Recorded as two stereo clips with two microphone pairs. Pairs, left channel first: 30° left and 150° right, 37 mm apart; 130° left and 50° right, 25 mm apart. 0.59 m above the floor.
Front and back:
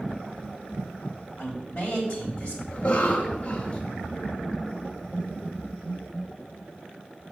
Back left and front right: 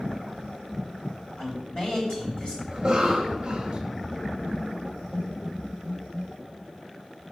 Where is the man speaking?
85° left, 3 m.